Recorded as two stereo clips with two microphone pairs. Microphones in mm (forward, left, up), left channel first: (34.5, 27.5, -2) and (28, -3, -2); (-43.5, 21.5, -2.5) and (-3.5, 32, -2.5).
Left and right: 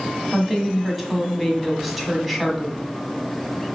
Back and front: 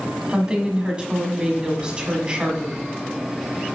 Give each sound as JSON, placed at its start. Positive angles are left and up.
{"t": 0.3, "sound": "a woman speaking", "azimuth_deg": -10, "distance_m": 1.2}